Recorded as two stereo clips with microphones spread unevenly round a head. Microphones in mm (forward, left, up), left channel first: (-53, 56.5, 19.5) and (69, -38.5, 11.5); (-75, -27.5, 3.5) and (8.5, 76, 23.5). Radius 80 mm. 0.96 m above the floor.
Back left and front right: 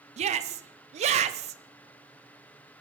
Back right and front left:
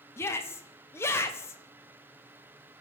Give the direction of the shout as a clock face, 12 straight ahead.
2 o'clock.